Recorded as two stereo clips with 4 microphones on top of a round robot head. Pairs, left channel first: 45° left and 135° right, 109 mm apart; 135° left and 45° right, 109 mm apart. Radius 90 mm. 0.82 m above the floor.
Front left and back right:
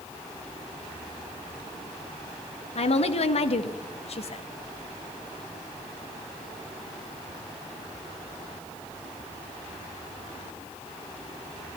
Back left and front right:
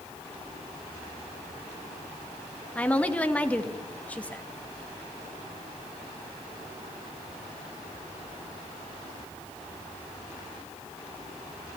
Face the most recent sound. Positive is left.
turn(degrees=55)